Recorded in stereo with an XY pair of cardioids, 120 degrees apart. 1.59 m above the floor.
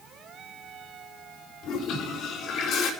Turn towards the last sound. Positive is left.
turn(degrees=70)